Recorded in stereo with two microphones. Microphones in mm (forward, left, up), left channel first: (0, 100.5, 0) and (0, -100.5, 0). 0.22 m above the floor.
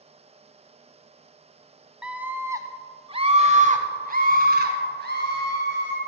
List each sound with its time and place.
2.0 s a scream: 5° right (ahead or behind), 1.2 m; by 6.0 s 65° right (ahead or behind), 2.5 m